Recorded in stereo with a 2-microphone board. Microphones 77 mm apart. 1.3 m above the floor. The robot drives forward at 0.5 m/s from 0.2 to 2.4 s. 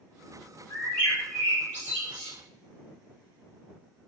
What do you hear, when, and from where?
0.7 s a bird: 20° left (ahead or behind), 2.0 m; by 2.3 s 30° left (ahead or behind), 1.4 m